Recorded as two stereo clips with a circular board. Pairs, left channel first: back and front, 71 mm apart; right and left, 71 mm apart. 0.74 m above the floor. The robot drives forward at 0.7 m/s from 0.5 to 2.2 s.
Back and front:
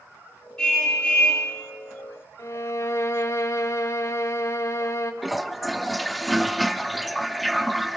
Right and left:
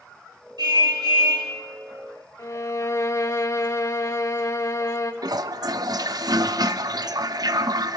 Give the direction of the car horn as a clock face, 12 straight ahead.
9 o'clock.